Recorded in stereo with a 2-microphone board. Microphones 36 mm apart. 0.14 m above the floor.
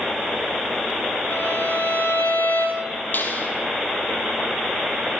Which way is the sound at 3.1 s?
60° left (ahead or behind).